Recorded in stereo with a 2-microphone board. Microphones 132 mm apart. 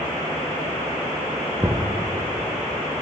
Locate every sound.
1.6 s knocking: 20° right (ahead or behind), 4 m